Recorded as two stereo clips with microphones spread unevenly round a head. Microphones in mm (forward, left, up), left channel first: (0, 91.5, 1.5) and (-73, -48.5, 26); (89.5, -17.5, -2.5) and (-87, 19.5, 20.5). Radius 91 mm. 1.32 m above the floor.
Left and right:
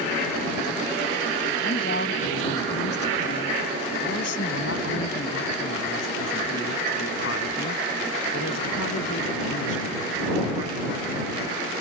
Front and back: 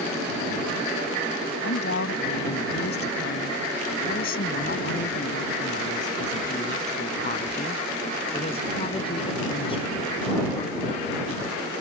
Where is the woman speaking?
20° left; by 11.1 s 55° left.